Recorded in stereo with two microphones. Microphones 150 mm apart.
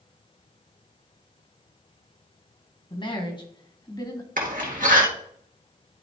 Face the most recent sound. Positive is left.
turn(degrees=-65)  # may be behind; listen again after turning